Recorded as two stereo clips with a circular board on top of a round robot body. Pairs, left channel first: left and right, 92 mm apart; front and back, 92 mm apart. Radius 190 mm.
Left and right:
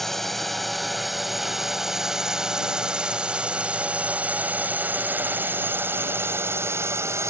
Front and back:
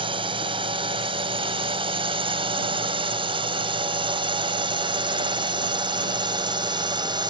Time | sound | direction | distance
0.0 | a drone | 175° left | ?